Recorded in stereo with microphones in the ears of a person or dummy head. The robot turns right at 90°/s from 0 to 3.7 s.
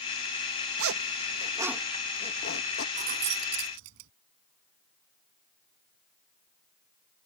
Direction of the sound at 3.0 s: 35° right (ahead or behind).